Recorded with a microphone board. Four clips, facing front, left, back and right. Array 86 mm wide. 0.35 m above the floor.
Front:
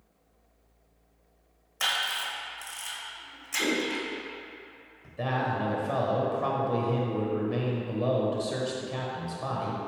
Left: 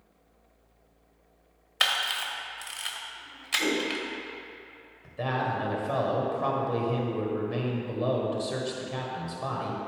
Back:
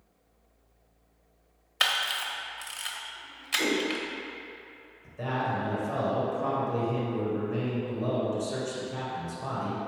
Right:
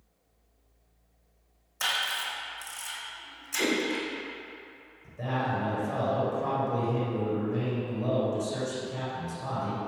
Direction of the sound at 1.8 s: 125° left.